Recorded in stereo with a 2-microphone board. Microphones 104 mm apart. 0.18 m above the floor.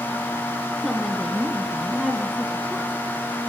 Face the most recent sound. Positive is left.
turn(degrees=0)  # may be behind; listen again after turning